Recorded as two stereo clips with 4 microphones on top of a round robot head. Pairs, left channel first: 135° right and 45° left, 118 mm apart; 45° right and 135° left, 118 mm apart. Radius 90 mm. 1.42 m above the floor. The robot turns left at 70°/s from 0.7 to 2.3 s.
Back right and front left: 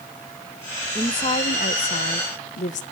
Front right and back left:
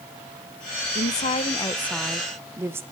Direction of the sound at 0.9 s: 60° right.